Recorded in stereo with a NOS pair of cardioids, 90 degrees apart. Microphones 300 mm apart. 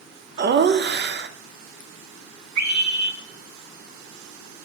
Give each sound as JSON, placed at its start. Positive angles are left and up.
{"t": 0.4, "sound": "laughter", "azimuth_deg": -35, "distance_m": 0.7}
{"t": 2.6, "sound": "a scream", "azimuth_deg": -65, "distance_m": 2.0}